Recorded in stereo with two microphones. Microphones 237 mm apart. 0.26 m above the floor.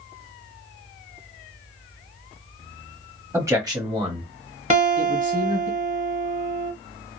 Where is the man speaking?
10° right (ahead or behind), 1.2 m; by 5.7 s 35° right (ahead or behind), 1.3 m.